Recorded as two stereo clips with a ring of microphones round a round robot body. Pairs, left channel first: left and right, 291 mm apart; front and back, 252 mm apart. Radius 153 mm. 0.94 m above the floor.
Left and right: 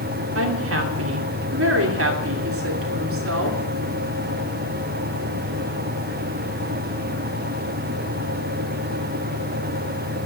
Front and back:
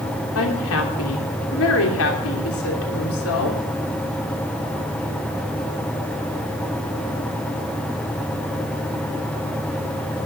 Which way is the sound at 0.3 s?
45° right.